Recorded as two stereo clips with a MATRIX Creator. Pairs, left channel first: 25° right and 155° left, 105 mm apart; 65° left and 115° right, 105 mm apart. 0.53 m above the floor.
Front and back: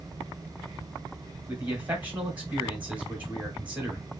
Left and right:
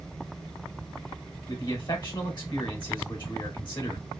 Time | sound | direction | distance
1.5 | a man speaking | 85° left | 1.4 m